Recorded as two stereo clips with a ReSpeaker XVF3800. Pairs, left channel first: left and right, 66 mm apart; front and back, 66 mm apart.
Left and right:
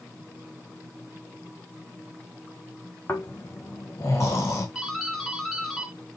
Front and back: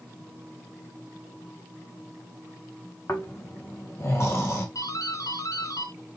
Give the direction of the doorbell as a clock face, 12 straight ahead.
12 o'clock.